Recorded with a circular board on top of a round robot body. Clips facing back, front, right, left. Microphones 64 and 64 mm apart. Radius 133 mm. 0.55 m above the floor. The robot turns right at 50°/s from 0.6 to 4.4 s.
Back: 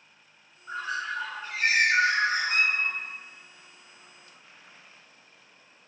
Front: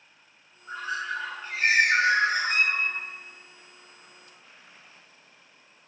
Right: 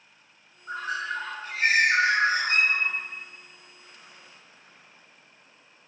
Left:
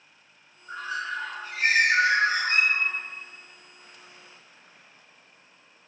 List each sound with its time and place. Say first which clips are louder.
0.7 s a bird: even, right 1 dB; 105° right, 0.9 m; by 2.9 s 5° left, 0.9 m